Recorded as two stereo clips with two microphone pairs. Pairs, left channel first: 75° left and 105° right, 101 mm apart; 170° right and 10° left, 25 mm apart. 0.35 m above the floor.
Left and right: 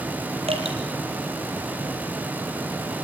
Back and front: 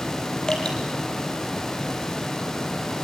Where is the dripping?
115° right, 5.5 m.